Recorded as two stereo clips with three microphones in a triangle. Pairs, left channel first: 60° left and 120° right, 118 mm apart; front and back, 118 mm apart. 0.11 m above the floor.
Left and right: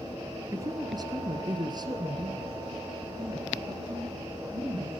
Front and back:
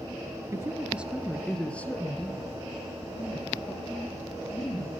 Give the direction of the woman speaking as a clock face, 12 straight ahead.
5 o'clock.